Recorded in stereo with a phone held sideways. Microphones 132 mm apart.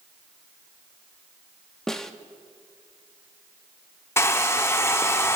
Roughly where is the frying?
No frying in this recording.